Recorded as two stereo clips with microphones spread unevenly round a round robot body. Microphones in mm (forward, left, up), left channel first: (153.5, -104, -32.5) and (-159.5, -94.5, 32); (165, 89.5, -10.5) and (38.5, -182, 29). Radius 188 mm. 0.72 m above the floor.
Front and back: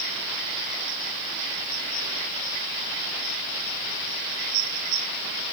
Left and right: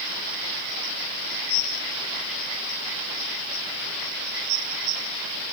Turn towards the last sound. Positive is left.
No sound to turn to.